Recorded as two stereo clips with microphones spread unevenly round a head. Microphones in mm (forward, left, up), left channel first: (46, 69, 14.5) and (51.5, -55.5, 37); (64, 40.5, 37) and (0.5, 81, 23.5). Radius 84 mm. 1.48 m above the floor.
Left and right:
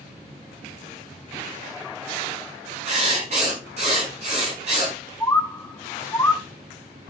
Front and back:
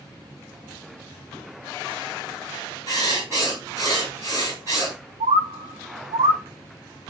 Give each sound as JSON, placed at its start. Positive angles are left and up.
{"t": 2.9, "sound": "writing", "azimuth_deg": -140, "distance_m": 5.5}
{"t": 5.2, "sound": "a bird", "azimuth_deg": 170, "distance_m": 0.8}